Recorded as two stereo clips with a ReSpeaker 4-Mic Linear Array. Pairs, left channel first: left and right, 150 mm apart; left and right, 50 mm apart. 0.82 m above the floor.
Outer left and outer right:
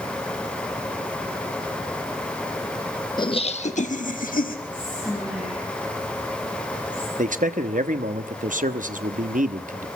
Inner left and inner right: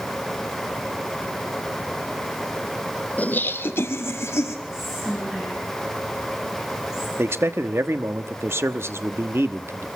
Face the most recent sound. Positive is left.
turn(degrees=-60)  # may be behind; listen again after turning